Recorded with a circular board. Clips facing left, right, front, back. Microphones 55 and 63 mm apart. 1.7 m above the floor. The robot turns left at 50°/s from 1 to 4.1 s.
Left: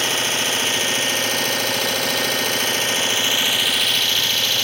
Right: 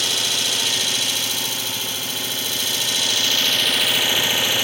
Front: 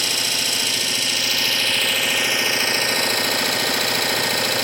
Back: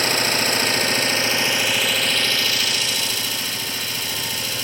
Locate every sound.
0.0 s an engine running: 140° left, 0.7 m; by 4.6 s 15° right, 0.7 m